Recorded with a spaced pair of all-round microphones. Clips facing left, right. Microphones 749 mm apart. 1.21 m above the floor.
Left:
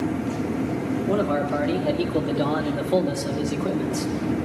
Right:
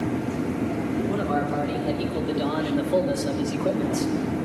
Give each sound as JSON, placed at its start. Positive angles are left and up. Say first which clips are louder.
{"t": 1.1, "sound": "a man speaking", "louder": "left 3 dB", "side_deg": 80, "distance_m": 4.0}